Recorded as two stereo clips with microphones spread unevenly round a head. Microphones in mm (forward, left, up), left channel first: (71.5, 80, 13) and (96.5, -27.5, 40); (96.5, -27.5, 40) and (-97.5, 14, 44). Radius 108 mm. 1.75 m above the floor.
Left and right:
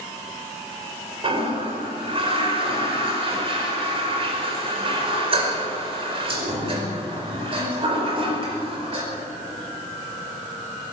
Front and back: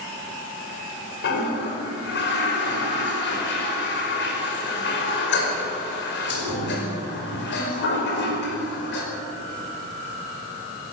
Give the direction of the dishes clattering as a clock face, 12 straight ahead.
No dishes clattering in this recording.